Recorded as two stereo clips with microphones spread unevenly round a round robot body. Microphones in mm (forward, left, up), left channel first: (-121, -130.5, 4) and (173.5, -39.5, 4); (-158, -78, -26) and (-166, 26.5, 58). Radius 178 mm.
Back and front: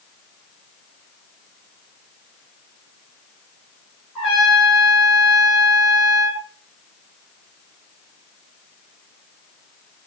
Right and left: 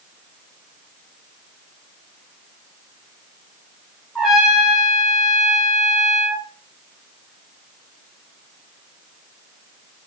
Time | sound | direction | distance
4.2 | a trumpet | 110° left | 0.5 m